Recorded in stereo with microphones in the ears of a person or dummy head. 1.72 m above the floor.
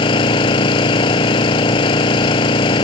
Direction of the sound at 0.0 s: 30° left (ahead or behind).